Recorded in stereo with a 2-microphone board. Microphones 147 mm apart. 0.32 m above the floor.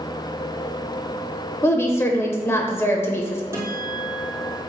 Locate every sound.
1.6 s a woman speaking: 15° left (ahead or behind), 0.8 m
3.5 s a guitar: 20° right (ahead or behind), 2.5 m